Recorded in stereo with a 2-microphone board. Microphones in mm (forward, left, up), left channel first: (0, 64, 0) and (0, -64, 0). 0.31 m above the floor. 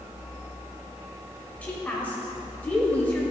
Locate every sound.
1.6 s a woman speaking: 15° left (ahead or behind), 1.1 m